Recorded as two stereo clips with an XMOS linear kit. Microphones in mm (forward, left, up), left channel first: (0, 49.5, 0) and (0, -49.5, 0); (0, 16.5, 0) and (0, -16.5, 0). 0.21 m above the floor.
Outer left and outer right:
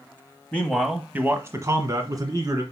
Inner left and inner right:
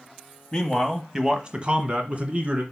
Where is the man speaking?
15° left (ahead or behind), 1.0 m; by 2.6 s 40° right (ahead or behind), 2 m.